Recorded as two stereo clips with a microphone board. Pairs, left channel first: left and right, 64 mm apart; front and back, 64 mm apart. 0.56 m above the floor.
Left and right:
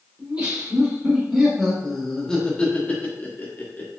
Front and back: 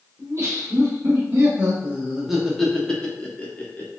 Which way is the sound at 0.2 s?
150° right.